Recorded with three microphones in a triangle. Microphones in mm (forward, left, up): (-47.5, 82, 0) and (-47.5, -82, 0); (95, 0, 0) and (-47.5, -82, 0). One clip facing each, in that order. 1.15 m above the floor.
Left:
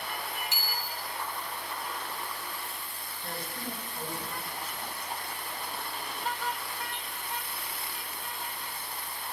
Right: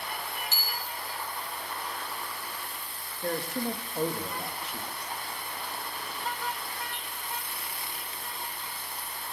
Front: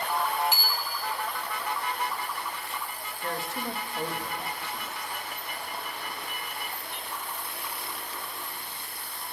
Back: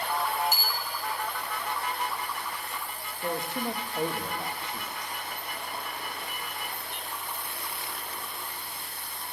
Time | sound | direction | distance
0.5 | a bicycle bell | 165° left | 2.5 m
3.2 | a man speaking | 80° right | 1.6 m